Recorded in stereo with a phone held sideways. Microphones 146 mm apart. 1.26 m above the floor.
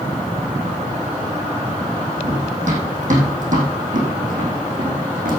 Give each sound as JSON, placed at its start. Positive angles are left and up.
{"t": 2.2, "sound": "running footsteps", "side_deg": -55, "distance_m": 4.0}